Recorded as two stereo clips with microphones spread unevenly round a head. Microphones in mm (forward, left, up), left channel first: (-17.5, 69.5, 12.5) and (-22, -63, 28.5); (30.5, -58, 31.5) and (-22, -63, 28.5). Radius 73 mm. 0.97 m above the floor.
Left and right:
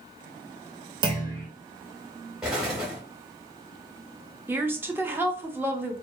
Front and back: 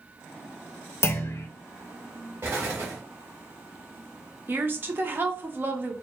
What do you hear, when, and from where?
1.0 s a clunk: 30° right, 0.6 m
2.4 s an explosion: 165° right, 0.9 m
4.5 s a woman speaking: 165° right, 0.6 m